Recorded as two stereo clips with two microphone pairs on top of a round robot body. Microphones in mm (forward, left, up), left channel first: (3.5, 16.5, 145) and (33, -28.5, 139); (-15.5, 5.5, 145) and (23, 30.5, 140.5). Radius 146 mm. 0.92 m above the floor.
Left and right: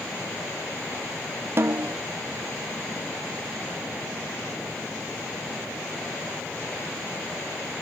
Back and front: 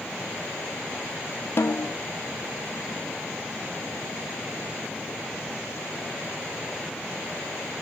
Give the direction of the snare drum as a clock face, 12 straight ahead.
4 o'clock.